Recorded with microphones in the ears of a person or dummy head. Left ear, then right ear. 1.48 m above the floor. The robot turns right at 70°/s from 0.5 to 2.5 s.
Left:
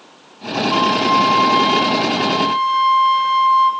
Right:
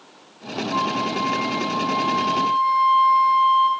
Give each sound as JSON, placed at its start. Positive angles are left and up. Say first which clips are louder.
{"t": 0.7, "sound": "a flute", "louder": "left 8 dB", "azimuth_deg": 60, "distance_m": 1.6}